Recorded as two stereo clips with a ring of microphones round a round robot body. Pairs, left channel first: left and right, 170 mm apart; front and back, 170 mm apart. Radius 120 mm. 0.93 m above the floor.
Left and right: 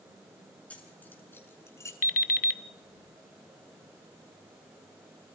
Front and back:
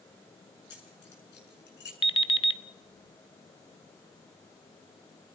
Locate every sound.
0.7 s keys jangling: 10° left, 9 m; by 1.9 s 15° left, 8 m
2.0 s an alarm clock: 60° left, 0.9 m